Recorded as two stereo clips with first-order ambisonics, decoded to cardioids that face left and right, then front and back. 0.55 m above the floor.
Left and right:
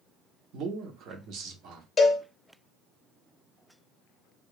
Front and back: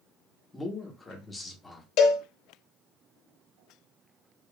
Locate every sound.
0.5 s a man speaking: 75° right, 0.9 m
2.0 s a cowbell: 20° left, 0.9 m